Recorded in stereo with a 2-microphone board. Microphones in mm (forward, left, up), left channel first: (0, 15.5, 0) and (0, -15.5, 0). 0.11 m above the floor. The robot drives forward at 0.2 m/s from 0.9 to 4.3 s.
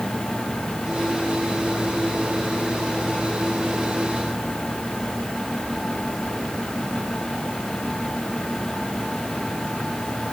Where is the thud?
No thud in this recording.